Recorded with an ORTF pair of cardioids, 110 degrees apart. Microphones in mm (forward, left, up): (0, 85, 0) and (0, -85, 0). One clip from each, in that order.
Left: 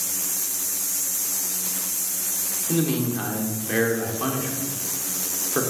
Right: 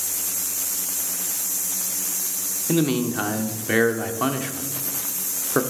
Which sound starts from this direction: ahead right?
A man speaking, at 2.7 s.